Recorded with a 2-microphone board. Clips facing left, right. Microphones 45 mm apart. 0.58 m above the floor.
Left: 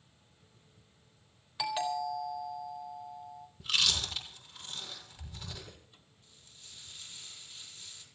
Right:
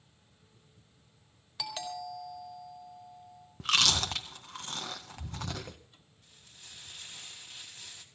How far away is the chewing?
About 1.7 m.